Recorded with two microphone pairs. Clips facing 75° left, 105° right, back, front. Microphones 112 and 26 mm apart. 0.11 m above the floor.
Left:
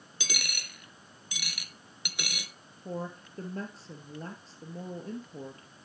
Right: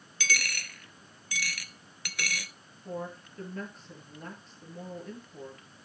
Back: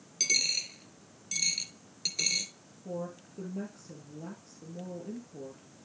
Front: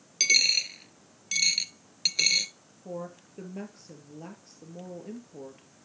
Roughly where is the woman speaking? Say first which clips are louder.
Even, even; ahead left.